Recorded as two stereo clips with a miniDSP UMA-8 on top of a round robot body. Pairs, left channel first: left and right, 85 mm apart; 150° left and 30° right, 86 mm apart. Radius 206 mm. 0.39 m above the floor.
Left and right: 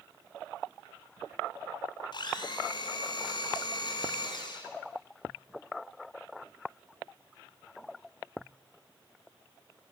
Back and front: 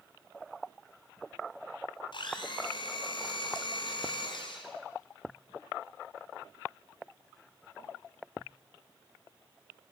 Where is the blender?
120° left, 2 m.